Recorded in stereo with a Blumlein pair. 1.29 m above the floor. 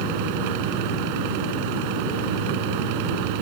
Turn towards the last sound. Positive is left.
turn(degrees=-45)